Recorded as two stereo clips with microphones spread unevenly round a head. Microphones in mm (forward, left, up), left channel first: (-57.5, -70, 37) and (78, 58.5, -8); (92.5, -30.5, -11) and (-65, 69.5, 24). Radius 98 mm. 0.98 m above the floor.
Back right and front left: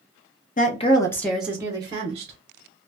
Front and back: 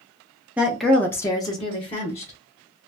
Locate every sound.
0.6 s a woman speaking: 115° right, 0.7 m; by 2.3 s 10° left, 1.1 m